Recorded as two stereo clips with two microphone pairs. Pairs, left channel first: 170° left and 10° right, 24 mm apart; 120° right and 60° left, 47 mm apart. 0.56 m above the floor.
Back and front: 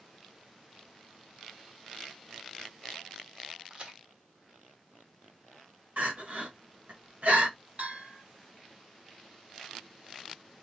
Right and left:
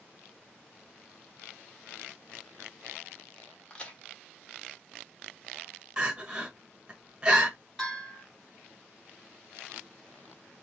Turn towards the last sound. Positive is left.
turn(degrees=-35)